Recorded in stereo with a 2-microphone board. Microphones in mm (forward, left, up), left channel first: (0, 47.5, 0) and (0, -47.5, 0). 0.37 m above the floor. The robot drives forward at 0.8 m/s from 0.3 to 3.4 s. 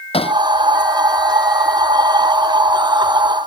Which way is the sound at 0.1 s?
85° left.